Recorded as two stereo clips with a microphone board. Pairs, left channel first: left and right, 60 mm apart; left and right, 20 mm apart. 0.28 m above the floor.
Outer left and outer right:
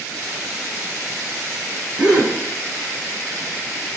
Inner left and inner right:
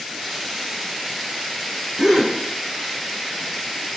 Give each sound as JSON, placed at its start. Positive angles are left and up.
{"t": 2.0, "sound": "a gasp", "side_deg": -20, "distance_m": 9.0}